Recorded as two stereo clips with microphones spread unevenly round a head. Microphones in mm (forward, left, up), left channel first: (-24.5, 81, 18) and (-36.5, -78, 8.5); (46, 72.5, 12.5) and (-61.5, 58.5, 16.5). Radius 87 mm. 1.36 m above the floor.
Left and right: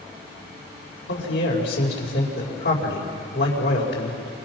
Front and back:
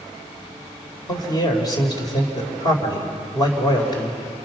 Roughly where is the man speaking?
Ahead left.